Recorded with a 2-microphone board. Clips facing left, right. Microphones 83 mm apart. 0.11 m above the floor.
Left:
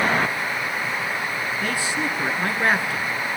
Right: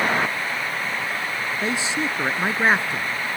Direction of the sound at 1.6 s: 20° right (ahead or behind).